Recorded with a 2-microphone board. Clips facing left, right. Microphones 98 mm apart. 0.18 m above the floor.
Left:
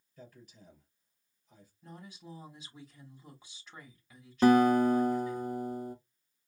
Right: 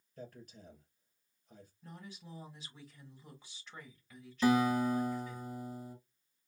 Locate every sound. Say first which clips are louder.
0.2 s a man speaking: right 4 dB; 50° right (ahead or behind), 4 m
1.8 s a woman speaking: left 3 dB; 15° left (ahead or behind), 1.5 m
4.4 s a guitar: left 6 dB; 60° left (ahead or behind), 1.0 m